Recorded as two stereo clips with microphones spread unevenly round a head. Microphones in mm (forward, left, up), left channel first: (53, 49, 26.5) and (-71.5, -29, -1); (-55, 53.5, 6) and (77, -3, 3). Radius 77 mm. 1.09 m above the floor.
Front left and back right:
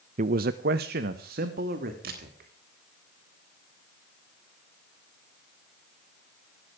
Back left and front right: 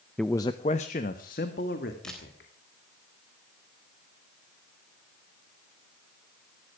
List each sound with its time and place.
0.2 s a man speaking: 115° right, 0.6 m; by 2.5 s 175° right, 3 m
2.0 s a camera shutter: 115° right, 3.5 m